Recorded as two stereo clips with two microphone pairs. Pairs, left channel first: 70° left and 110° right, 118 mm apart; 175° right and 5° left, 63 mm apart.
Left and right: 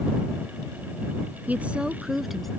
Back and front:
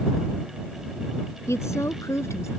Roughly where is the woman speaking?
Behind.